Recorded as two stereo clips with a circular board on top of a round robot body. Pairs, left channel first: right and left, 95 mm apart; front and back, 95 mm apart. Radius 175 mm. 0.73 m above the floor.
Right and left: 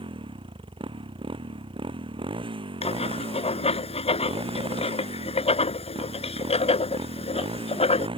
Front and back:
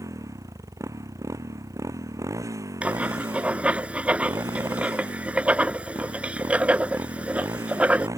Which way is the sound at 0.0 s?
120° left.